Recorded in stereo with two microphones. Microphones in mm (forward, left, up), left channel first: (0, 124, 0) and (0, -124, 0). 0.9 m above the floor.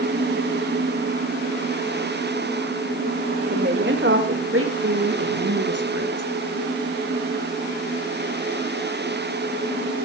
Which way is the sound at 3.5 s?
45° right (ahead or behind).